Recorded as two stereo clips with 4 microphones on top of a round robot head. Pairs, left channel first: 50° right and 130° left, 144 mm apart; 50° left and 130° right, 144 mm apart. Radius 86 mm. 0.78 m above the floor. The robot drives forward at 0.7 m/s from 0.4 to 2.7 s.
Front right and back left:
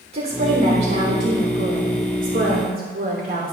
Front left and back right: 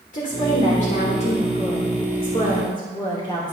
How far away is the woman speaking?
About 3 m.